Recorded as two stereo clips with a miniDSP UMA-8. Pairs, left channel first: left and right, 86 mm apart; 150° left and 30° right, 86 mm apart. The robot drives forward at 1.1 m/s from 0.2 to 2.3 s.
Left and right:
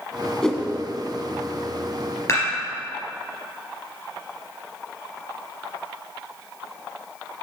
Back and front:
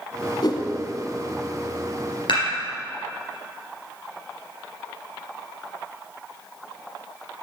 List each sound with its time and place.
0.4 s a whoosh: 170° left, 0.9 m; by 0.7 s 175° left, 1.2 m
2.3 s dishes clattering: 145° left, 3 m